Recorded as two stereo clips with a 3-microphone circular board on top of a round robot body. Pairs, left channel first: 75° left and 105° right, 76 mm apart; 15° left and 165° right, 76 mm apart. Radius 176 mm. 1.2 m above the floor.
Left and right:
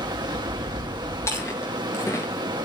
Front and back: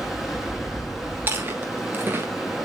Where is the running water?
75° right, 0.7 m.